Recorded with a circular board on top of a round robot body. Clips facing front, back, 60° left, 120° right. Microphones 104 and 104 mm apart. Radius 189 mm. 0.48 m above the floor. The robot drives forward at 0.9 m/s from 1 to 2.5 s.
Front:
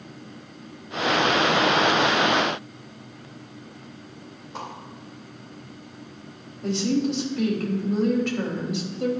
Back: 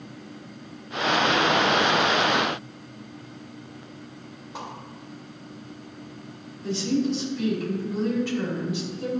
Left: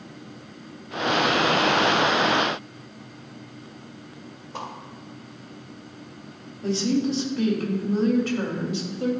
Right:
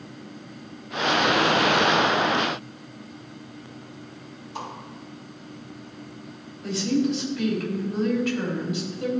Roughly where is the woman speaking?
Ahead.